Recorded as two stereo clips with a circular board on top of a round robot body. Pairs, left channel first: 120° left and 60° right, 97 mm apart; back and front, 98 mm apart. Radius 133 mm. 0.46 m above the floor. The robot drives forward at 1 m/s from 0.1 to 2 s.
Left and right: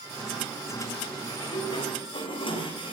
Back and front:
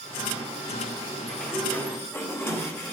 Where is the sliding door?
95° left, 1.9 m; by 2.9 s 120° left, 2 m.